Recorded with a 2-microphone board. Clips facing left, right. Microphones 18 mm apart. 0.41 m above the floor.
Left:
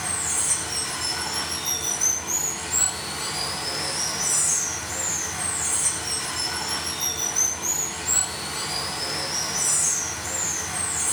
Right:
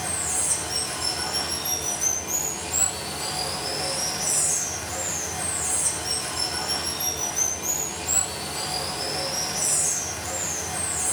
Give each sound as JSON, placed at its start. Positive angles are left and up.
{"t": 0.0, "sound": "running water", "side_deg": 40, "distance_m": 1.1}